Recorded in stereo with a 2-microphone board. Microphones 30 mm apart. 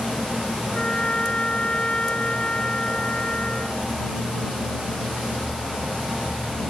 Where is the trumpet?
35° left (ahead or behind).